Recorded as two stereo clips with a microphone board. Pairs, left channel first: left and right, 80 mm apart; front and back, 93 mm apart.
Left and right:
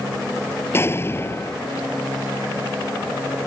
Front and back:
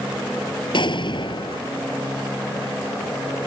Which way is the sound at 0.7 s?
30° left.